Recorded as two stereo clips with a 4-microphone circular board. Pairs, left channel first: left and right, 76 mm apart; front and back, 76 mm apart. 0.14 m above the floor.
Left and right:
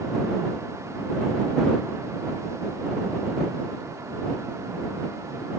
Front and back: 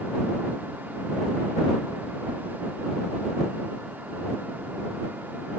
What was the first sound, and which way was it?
Only background noise.